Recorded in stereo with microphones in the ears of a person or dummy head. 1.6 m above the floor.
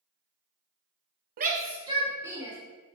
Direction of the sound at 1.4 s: 50° right (ahead or behind).